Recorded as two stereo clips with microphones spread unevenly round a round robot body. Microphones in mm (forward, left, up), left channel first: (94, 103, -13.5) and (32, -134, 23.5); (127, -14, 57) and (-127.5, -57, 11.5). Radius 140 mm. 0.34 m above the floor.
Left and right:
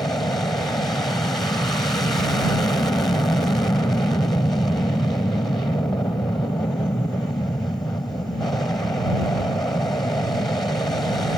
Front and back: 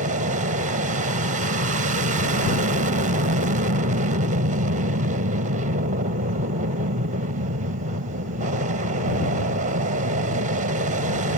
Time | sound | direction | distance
0.0 | an aircraft | 155° left | ?